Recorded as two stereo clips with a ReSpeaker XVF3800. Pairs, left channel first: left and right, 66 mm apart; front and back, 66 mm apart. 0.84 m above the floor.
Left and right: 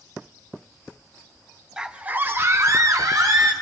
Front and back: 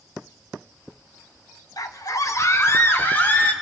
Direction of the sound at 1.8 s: 10° right.